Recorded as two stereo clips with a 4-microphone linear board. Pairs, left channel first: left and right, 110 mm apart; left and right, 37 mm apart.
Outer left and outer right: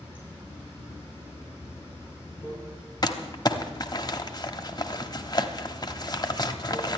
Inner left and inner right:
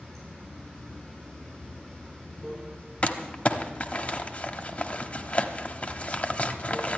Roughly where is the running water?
Centre.